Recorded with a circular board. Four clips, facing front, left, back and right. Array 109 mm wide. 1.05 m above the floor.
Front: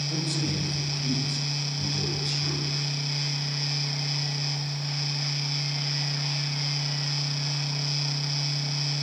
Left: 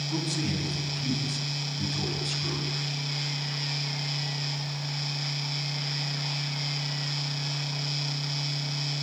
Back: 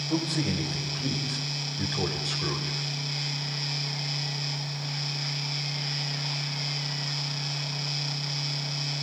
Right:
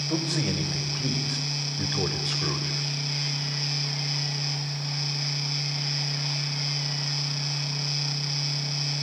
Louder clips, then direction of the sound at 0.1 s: Right 3 dB, back 4 dB; 105° right.